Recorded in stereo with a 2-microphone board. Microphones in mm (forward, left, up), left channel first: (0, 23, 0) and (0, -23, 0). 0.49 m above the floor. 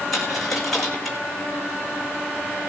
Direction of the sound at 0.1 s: 5° left (ahead or behind).